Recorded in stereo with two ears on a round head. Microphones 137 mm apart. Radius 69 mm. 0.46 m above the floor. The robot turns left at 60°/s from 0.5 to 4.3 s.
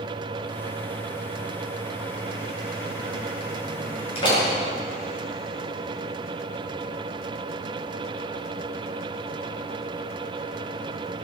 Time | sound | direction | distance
4.2 | a door slam | 40° left (ahead or behind) | 5.5 m